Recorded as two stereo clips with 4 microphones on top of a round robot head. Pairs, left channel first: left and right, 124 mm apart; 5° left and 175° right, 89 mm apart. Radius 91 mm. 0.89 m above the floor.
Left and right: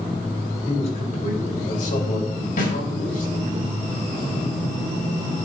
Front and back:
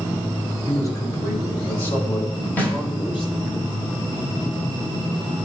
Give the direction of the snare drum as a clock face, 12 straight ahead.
10 o'clock.